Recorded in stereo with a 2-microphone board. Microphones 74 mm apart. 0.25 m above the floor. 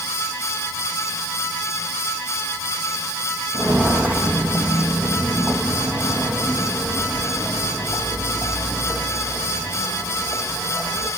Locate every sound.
3.5 s footsteps: 25° right (ahead or behind), 1.8 m; by 11.1 s 10° right (ahead or behind), 8.5 m